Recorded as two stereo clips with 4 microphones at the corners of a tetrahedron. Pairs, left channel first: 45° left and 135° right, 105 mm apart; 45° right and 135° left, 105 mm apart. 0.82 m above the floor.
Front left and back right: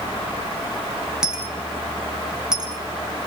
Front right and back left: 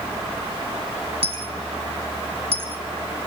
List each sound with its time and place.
1.2 s a dropped coin: 140° left, 1.4 m